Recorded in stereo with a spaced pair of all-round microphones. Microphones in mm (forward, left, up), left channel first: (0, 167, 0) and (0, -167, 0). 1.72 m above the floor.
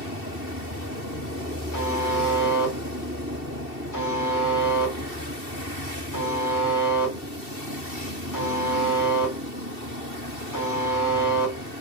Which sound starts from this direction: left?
A buzzer, at 1.7 s.